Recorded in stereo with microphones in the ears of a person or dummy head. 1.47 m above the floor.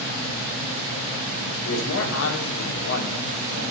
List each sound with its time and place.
1.6 s a man speaking: 75° left (ahead or behind), 1.4 m